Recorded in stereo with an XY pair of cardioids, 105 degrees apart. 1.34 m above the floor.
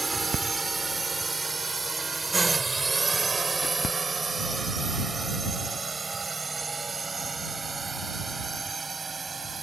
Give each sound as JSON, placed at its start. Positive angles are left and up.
{"t": 0.0, "sound": "a drone", "azimuth_deg": -20}